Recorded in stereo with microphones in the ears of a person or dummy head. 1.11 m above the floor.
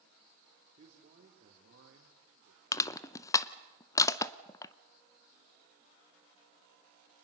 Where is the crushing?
20° left (ahead or behind), 0.6 m.